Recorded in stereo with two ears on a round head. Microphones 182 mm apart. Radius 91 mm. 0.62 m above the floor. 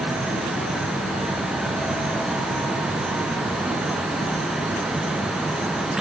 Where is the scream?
I don't hear a scream.